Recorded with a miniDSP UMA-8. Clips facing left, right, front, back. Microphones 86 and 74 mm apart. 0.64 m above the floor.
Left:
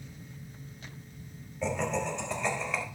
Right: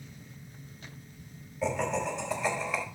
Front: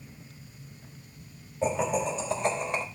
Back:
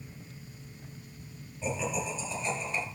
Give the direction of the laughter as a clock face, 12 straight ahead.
12 o'clock.